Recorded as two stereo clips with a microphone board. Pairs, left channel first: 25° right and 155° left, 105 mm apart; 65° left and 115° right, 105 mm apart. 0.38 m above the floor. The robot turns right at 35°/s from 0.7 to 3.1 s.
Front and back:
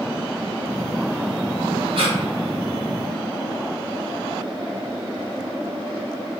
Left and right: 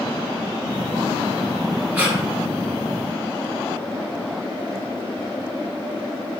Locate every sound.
1.9 s breathing: 175° left, 1.0 m; by 2.2 s straight behind, 1.0 m